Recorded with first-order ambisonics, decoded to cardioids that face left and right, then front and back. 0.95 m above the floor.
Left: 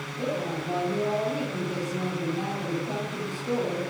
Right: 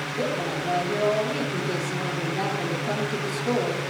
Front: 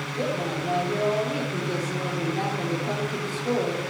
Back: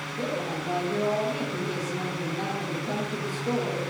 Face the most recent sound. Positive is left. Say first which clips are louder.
# right 2 dB, front 3 dB
turn(degrees=-45)